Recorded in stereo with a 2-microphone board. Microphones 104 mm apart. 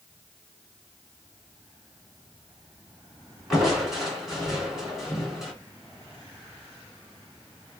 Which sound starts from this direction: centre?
Crushing, at 3.5 s.